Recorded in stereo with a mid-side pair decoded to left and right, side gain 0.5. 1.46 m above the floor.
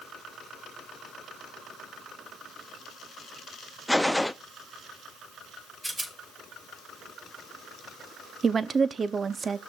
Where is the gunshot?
5° left, 0.5 m.